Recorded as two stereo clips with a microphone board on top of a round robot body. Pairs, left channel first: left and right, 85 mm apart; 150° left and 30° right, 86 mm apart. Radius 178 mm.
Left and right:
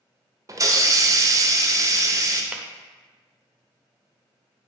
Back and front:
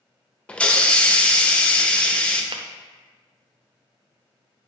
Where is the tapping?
15° right, 0.8 m.